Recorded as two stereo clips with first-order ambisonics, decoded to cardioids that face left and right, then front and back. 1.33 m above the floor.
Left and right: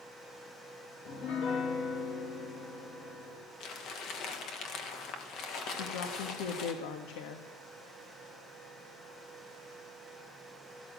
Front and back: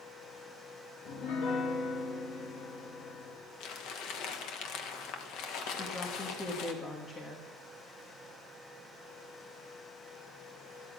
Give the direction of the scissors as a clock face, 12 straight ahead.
No scissors in this recording.